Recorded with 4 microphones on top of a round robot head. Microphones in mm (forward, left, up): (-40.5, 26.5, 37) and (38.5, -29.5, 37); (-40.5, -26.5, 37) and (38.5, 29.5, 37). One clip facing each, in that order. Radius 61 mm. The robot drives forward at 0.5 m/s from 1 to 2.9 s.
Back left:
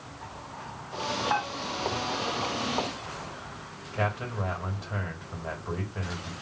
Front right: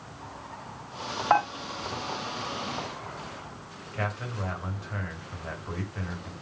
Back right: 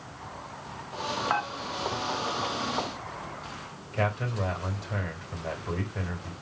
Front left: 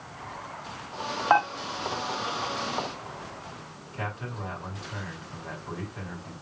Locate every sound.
1.3 s dishes clattering: 15° right, 2 m
3.9 s a man speaking: 145° right, 3.5 m